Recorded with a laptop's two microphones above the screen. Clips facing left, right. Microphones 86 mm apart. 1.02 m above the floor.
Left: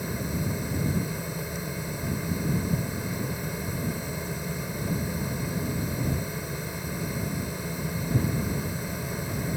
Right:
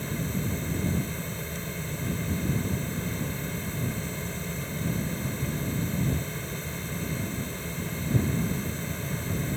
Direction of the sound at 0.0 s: 10° left (ahead or behind).